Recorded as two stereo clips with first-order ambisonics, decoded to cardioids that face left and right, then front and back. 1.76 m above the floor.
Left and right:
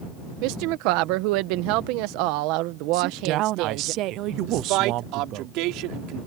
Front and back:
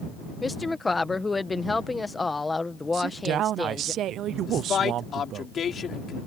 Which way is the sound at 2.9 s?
130° right.